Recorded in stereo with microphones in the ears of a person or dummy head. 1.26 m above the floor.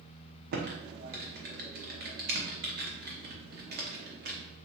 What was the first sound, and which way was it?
Typing on a keyboard, 50° right (ahead or behind).